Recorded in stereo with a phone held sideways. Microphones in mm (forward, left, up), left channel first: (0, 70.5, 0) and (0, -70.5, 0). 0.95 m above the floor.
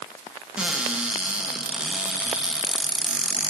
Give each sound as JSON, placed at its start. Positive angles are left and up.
{"t": 0.6, "sound": "a cupboard door", "side_deg": -5, "distance_m": 0.9}